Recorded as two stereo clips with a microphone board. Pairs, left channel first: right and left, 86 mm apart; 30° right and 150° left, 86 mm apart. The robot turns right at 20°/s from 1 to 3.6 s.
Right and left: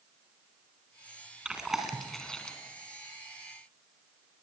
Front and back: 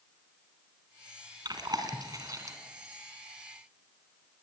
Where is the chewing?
170° left, 3 m; by 2.6 s 170° right, 3 m.